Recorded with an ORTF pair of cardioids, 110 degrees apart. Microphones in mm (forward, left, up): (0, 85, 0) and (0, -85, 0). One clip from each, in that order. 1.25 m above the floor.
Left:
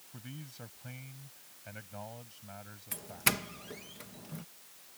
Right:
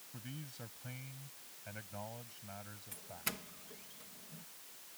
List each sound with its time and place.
0.1 s a man speaking: 15° left
2.9 s a doorbell: 70° left